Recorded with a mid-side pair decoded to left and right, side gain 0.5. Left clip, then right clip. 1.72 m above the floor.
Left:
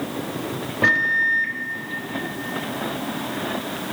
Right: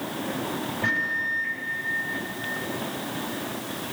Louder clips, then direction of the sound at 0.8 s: Left 8 dB; 65° left.